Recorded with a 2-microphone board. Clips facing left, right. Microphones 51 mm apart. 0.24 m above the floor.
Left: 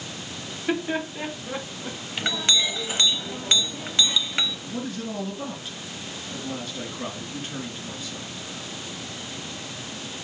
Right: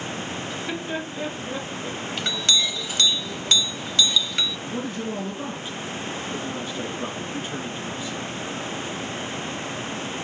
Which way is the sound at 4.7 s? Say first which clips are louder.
Right 2 dB; 15° right (ahead or behind).